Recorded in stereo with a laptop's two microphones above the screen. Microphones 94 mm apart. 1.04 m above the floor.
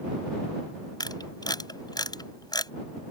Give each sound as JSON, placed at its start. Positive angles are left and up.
{"t": 1.0, "sound": "a camera shutter", "side_deg": 50}